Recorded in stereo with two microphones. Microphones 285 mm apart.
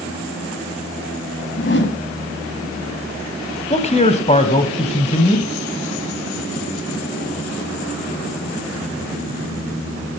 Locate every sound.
1.6 s a whoosh: 40° left (ahead or behind), 1.0 m
3.7 s a man speaking: 25° left (ahead or behind), 1.1 m